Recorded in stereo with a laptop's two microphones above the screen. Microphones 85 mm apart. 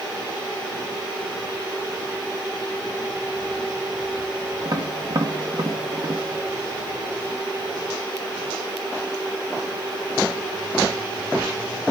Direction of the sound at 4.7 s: 50° right (ahead or behind).